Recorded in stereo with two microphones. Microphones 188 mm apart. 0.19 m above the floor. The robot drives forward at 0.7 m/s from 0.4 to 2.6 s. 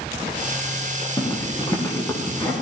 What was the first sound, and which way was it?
A zipper, 20° left (ahead or behind).